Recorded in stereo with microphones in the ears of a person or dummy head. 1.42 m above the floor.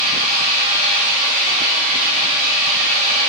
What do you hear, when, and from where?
0.0 s an engine running: 40° right (ahead or behind), 2 m